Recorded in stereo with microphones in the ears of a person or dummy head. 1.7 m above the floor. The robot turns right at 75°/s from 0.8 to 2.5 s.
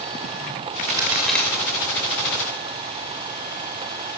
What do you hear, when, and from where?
1.0 s a crack: 25° right (ahead or behind), 3.5 m; by 1.5 s 10° left (ahead or behind), 3.5 m